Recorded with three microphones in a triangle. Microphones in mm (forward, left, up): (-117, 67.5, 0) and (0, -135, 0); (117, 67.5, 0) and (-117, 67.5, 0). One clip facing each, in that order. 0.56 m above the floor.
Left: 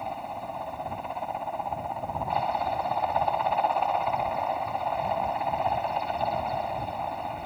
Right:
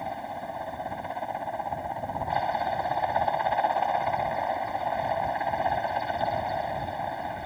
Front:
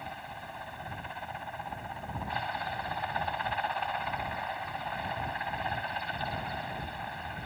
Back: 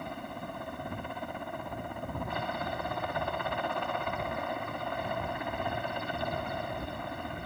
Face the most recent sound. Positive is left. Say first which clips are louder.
# right 1 dB, back 7 dB
turn(degrees=-145)